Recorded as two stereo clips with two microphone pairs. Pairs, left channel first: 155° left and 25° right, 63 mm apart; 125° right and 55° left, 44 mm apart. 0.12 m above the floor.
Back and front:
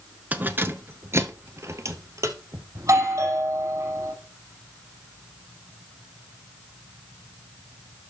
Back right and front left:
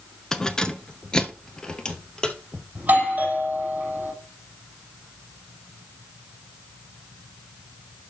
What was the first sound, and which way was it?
Keys jangling, 65° right.